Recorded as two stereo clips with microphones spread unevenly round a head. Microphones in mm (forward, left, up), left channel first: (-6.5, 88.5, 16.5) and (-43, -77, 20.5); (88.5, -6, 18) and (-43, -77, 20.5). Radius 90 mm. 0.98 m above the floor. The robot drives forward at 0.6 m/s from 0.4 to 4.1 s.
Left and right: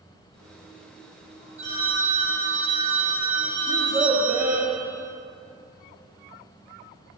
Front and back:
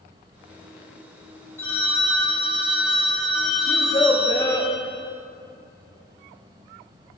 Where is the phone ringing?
45° right, 4 m; by 4.7 s 65° right, 3.5 m.